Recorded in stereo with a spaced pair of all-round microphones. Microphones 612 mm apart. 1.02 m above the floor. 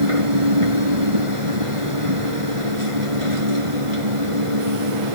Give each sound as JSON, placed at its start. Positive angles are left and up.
{"t": 0.0, "sound": "a machine running", "side_deg": -60}